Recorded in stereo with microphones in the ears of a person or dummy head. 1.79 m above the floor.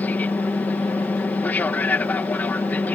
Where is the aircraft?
5° left (ahead or behind).